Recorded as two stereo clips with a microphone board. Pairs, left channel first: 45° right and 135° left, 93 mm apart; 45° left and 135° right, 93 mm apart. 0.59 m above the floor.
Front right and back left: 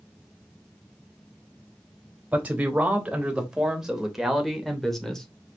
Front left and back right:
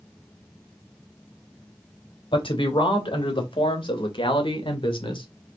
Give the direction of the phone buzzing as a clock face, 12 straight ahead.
No phone buzzing in this recording.